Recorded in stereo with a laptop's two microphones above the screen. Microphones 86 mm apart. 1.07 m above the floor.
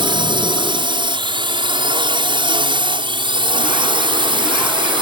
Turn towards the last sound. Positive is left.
turn(degrees=-70)  # may be behind; listen again after turning